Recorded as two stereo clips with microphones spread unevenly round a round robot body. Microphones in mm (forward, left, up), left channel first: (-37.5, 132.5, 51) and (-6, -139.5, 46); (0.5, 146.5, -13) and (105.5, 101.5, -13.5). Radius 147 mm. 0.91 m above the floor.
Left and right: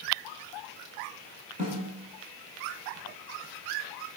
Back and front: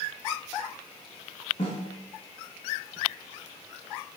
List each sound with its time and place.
1.6 s a snare drum: 145° right, 2 m